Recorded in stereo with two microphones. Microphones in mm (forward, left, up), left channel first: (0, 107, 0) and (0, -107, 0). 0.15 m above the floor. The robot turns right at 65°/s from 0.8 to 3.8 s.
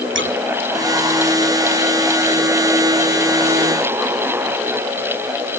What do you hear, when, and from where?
0.1 s scissors: 55° right (ahead or behind)